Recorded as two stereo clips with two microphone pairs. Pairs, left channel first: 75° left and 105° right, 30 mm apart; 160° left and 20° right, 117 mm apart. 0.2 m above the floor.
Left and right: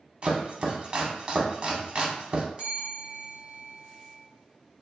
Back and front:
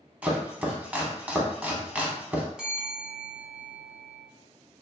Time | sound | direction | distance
0.2 | chopping | 90° right | 0.6 m
2.6 | a bell | 100° right | 0.8 m